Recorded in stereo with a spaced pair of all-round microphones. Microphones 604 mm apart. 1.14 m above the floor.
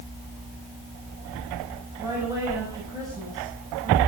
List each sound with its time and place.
2.0 s a woman speaking: 5° right (ahead or behind), 6 m